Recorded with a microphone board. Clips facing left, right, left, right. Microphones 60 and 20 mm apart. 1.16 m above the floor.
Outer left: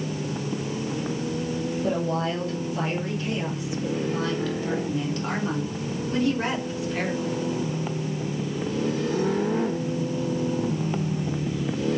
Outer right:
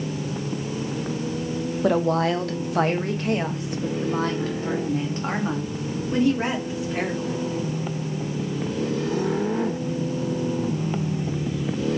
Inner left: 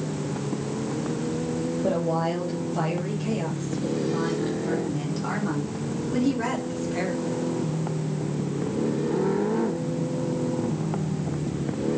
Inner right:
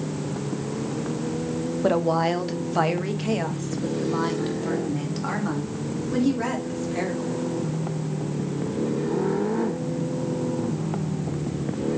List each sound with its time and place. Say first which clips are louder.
1.8 s a woman speaking: outer right 7 dB, inner right 5 dB; 75° right (ahead or behind), 1.4 m; by 7.5 s 15° right (ahead or behind), 3 m